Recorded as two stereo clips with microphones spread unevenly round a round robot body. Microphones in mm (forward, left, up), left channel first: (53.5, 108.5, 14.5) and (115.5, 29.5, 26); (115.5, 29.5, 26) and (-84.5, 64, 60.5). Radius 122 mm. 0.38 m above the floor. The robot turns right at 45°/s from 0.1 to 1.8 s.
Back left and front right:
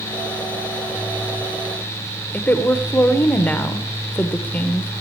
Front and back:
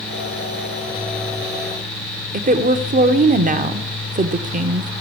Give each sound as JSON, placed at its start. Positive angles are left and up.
{"t": 2.3, "sound": "a woman speaking", "azimuth_deg": 170, "distance_m": 0.9}